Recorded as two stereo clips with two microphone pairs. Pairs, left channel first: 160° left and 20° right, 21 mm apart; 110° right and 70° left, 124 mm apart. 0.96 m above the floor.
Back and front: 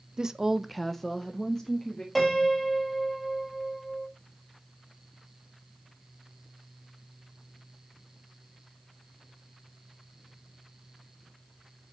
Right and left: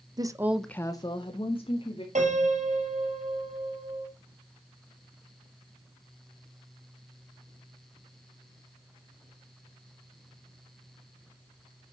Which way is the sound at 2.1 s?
70° left.